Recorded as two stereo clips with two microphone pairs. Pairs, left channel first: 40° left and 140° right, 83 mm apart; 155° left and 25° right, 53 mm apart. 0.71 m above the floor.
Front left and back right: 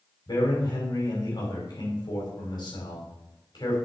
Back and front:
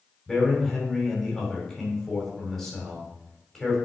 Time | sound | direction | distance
0.3 | a man speaking | 65° left | 4.5 m